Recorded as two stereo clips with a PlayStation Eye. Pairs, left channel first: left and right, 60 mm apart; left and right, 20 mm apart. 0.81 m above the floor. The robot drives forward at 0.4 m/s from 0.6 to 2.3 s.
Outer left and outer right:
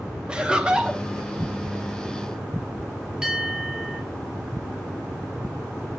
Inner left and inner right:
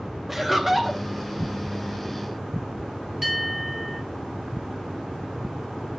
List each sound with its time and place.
0.3 s laughter: 15° right (ahead or behind), 0.5 m; by 1.0 s 10° right (ahead or behind), 0.7 m
3.2 s a bell: 15° right (ahead or behind), 1.5 m